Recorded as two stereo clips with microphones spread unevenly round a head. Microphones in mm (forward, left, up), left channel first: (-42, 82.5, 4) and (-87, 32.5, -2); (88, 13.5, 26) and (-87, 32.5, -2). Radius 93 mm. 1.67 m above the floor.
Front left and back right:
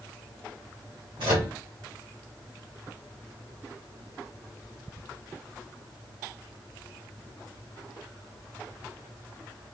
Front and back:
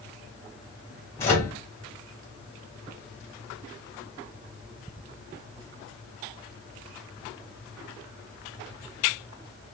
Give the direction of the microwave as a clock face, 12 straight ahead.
3 o'clock.